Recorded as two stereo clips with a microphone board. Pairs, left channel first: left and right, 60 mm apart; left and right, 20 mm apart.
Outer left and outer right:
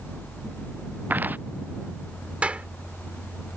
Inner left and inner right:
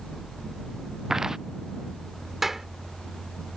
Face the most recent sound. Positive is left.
turn(degrees=-20)  # may be behind; listen again after turning